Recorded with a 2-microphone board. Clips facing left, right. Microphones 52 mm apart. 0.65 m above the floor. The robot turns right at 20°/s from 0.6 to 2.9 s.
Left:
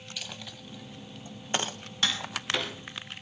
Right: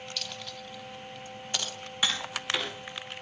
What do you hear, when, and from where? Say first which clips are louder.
0.2 s a dropped coin: right 2 dB; 15° left (ahead or behind), 1.2 m; by 1.8 s 35° left (ahead or behind), 1.2 m
2.0 s tapping: even; 10° right (ahead or behind), 6 m; by 2.7 s centre (ahead or behind), 6 m